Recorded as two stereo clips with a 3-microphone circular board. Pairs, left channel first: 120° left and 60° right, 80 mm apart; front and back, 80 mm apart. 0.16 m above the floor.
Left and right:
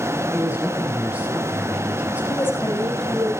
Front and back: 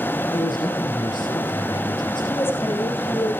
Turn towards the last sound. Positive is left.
turn(degrees=60)